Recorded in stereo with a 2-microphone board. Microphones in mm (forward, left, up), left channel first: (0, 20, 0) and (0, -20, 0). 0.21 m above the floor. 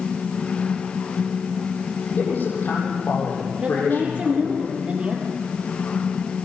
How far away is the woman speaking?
About 4 m.